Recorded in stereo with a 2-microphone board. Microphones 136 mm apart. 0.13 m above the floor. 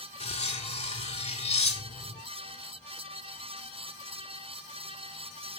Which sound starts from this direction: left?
Cutlery clinking, at 0.2 s.